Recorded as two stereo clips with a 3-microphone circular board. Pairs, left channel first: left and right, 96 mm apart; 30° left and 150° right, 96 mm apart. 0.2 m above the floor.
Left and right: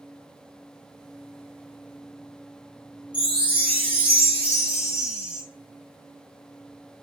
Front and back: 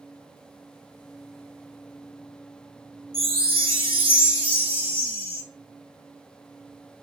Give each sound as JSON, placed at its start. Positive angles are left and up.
{"t": 3.1, "sound": "a chime", "azimuth_deg": -170, "distance_m": 1.3}